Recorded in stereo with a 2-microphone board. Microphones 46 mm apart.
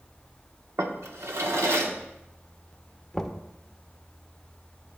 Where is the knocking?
10° left (ahead or behind), 0.8 m.